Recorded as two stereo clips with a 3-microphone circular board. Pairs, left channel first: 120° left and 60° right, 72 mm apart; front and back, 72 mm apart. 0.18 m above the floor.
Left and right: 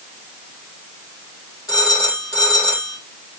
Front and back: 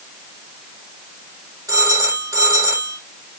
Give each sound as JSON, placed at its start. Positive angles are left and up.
{"t": 1.7, "sound": "a phone ringing", "azimuth_deg": 145, "distance_m": 5.0}